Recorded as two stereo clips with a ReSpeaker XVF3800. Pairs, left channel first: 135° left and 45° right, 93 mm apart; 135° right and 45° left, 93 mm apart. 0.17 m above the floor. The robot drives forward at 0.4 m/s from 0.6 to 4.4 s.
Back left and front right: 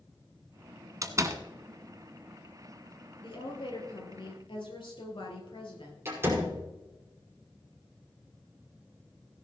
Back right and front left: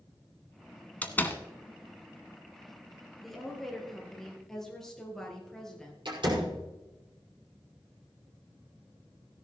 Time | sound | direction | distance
1.0 | a door slam | 70° right | 1.2 m
3.2 | a woman speaking | 135° left | 4 m
6.0 | a door slam | 20° left | 5.5 m